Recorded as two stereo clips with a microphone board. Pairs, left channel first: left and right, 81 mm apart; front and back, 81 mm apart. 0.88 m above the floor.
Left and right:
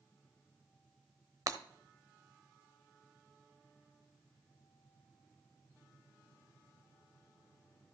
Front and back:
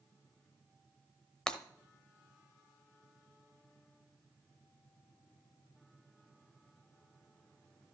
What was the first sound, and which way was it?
Breaking glass, 75° right.